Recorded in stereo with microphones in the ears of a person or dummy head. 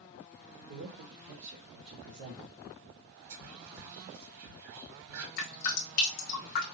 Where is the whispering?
65° right (ahead or behind), 0.9 m.